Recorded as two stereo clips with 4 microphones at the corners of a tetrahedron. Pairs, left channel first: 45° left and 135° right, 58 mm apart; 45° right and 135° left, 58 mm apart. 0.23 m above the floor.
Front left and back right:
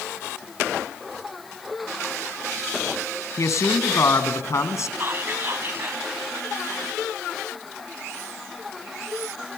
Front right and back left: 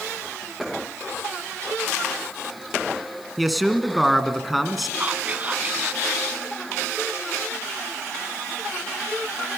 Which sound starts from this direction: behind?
Whispering, at 5.0 s.